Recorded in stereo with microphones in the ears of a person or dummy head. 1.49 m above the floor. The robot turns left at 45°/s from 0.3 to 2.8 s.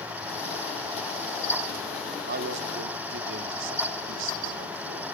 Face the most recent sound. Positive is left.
turn(degrees=-80)